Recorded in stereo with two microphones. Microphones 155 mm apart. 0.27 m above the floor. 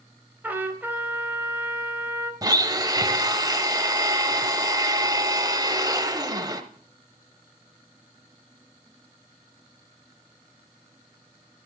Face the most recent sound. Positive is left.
turn(degrees=-25)  # may be behind; listen again after turning